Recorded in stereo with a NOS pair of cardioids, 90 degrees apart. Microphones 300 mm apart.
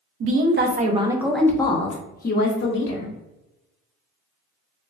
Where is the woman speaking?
50° right, 0.8 m; by 3.1 s 45° left, 1.3 m.